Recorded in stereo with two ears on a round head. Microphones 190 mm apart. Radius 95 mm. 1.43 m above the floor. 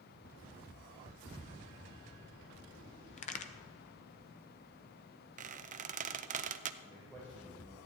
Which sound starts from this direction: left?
A crack, at 3.2 s.